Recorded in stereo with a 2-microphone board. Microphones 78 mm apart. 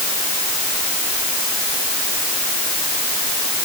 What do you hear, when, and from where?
Only background noise.